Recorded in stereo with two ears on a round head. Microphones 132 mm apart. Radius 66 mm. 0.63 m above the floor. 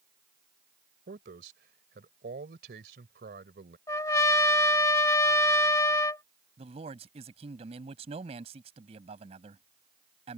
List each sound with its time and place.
1.1 s a man speaking: 75° right (ahead or behind)
3.9 s a trumpet: 20° left (ahead or behind)
6.6 s a man speaking: 45° right (ahead or behind)